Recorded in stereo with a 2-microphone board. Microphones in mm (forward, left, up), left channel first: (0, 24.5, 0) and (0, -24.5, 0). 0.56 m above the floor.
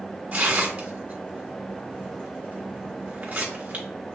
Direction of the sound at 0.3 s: 35° right (ahead or behind).